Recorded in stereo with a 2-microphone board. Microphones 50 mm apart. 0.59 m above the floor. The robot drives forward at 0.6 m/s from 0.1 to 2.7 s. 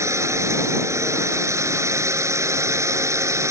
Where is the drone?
80° right.